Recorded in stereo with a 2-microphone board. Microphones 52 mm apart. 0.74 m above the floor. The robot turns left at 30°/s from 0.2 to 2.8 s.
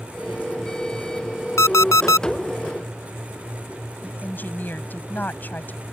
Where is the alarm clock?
70° left (ahead or behind); by 2.3 s 90° left.